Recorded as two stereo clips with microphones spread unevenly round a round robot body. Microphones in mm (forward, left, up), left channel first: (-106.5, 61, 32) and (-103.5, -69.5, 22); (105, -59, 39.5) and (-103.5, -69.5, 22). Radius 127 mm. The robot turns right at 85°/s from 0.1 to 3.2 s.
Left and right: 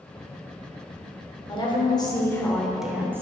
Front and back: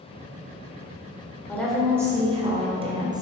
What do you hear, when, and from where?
1.5 s a woman speaking: 80° left, 1.1 m; by 3.2 s 135° right, 1.1 m